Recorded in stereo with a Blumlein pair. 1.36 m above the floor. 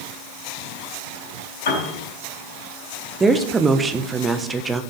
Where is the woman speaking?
15° right, 1.0 m.